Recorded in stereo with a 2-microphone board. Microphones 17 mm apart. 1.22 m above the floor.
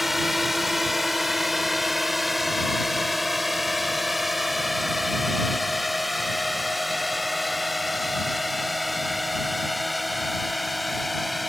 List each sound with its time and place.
0.0 s a drone: 5° right (ahead or behind); by 11.5 s 5° left (ahead or behind)